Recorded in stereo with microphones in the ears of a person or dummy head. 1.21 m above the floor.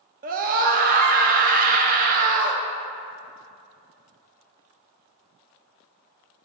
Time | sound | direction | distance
0.2 | a scream | 35° right (ahead or behind) | 0.7 m